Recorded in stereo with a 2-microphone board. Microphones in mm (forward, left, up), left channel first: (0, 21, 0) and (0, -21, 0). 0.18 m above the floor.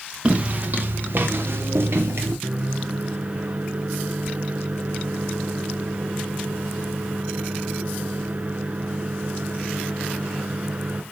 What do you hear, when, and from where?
0.2 s footsteps: 35° right (ahead or behind), 1.7 m; by 2.3 s 75° right (ahead or behind), 3 m
2.4 s a microwave: 40° right (ahead or behind), 1.4 m